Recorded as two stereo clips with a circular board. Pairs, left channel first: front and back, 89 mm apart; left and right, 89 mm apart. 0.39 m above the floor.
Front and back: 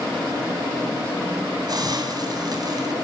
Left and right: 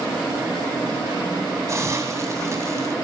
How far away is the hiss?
About 3 m.